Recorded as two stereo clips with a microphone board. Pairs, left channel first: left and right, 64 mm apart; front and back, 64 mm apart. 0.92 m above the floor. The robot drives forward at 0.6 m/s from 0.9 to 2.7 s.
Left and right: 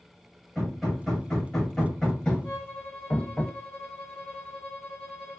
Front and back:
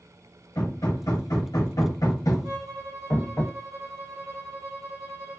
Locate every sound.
0.6 s hammering: 5° left, 1.4 m; by 3.4 s 30° left, 0.5 m
2.4 s a violin: 150° left, 1.1 m